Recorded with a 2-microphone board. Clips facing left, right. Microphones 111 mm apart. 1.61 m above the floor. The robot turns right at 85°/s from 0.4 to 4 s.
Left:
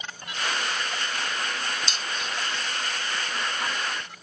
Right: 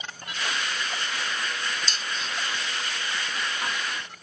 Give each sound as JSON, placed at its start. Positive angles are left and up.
{"t": 1.9, "sound": "dishes clattering", "side_deg": -40, "distance_m": 0.9}